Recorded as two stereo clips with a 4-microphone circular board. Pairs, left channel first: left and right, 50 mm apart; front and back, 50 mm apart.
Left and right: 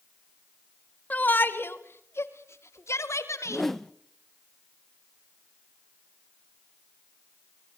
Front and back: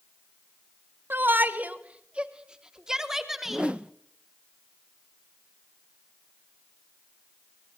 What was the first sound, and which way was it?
A shout, 140° left.